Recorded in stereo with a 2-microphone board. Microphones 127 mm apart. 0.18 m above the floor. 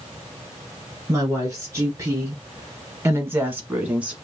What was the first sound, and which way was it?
A woman speaking, 25° right (ahead or behind).